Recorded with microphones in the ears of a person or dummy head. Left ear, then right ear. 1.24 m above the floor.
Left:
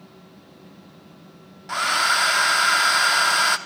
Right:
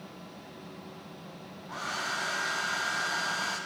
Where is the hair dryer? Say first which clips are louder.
Left 14 dB; 55° left (ahead or behind), 1.1 m.